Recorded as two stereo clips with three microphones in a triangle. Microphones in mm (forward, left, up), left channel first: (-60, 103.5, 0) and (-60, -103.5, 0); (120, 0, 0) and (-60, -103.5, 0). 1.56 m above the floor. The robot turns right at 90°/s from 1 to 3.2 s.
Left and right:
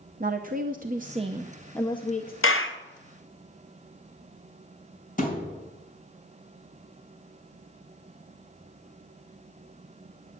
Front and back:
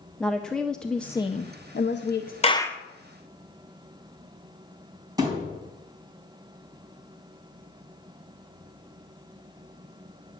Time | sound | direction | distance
0.2 | a woman speaking | 55° right | 0.7 m
2.4 | a clap | 85° left | 0.9 m
5.2 | a thud | 140° left | 4 m